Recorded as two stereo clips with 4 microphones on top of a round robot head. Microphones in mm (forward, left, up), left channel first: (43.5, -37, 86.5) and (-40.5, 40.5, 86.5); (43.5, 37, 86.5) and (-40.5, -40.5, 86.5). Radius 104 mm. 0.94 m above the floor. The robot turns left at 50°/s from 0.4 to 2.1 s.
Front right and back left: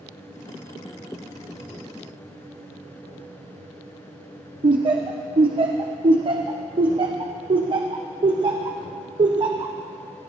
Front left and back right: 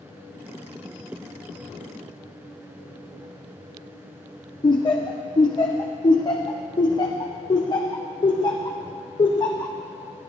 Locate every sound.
4.6 s laughter: 95° left, 0.9 m